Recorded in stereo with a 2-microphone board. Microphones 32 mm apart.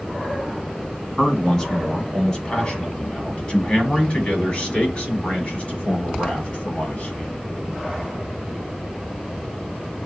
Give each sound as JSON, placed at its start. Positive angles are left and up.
{"t": 1.2, "sound": "a man speaking", "side_deg": 15, "distance_m": 2.5}